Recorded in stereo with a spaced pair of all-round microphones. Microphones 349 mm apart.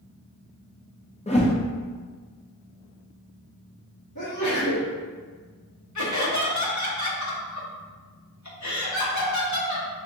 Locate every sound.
1.3 s a whoosh: 20° left (ahead or behind), 0.6 m
4.2 s a sneeze: 55° left (ahead or behind), 1.4 m
6.0 s laughter: 55° left (ahead or behind), 1.0 m